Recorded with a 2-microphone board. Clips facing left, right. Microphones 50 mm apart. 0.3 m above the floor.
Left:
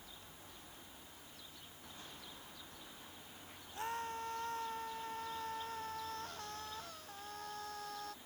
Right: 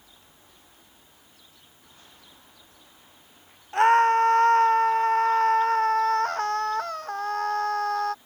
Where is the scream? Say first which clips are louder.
Right 24 dB; 75° right (ahead or behind); by 8.2 s 65° right (ahead or behind).